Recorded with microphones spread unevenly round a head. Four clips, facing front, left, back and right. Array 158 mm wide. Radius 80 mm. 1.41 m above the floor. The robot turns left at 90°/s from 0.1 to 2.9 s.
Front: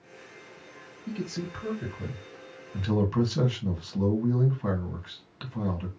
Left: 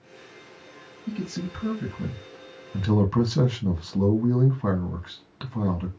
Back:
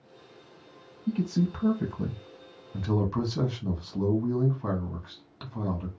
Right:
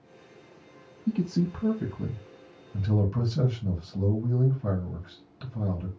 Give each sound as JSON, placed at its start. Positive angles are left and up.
{"t": 1.1, "sound": "a man speaking", "azimuth_deg": -100, "distance_m": 1.5}